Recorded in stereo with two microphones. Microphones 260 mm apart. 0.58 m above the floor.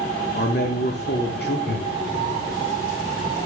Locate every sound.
0.3 s a man speaking: 40° left (ahead or behind), 0.8 m
1.7 s laughter: 45° left (ahead or behind), 1.3 m